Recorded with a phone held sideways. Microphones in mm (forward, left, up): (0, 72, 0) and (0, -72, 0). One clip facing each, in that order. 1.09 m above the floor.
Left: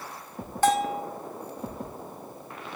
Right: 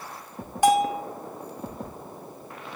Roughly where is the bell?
Centre.